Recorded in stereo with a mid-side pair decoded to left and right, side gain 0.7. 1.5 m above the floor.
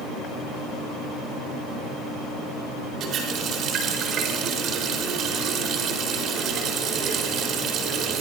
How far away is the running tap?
About 4.5 m.